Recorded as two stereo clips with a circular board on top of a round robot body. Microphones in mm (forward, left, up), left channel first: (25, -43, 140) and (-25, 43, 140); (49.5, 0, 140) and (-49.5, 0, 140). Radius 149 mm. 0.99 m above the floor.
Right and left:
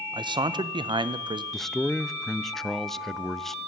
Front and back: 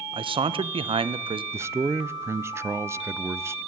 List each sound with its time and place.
0.1 s a man speaking: 155° left, 0.7 m
1.5 s a man speaking: 145° right, 0.6 m